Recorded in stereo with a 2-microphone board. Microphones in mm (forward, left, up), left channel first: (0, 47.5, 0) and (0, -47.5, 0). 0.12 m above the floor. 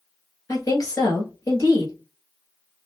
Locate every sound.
0.5 s a woman speaking: 40° left (ahead or behind), 1.8 m